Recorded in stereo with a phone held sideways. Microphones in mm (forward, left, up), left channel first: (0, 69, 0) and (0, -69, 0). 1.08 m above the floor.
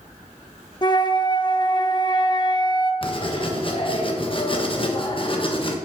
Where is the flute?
30° left (ahead or behind), 0.6 m.